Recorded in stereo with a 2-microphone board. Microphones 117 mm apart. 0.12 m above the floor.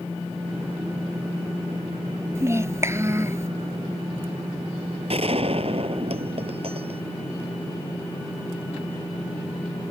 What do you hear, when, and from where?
2.4 s a child speaking: 25° right (ahead or behind)
5.1 s a gunshot: 55° right (ahead or behind)